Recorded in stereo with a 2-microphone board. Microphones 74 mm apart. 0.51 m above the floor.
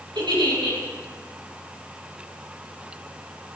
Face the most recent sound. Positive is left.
turn(degrees=-70)  # may be behind; listen again after turning